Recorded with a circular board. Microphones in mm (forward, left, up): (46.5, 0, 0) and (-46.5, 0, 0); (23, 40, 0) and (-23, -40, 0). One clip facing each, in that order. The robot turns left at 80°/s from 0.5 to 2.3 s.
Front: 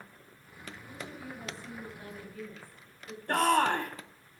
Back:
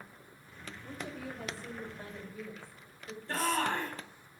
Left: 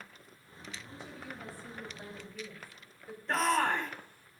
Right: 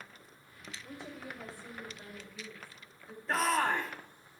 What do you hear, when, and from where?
0.8 s a woman speaking: 130° right, 5.5 m; by 3.2 s 110° left, 5.5 m
3.3 s a shout: 30° right, 2.5 m